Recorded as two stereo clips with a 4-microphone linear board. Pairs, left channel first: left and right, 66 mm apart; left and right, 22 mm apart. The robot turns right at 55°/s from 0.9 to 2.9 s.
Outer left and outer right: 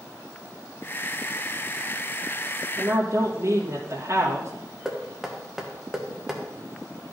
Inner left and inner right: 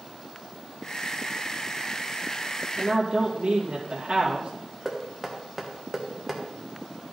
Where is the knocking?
5° right (ahead or behind), 1.4 m.